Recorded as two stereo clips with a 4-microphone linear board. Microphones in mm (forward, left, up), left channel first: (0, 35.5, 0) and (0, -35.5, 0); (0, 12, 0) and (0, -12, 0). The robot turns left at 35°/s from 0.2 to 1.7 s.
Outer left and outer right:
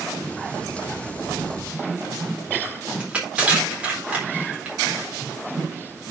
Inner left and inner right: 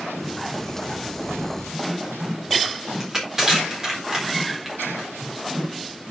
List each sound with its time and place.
3.0 s crushing: 15° right (ahead or behind), 4 m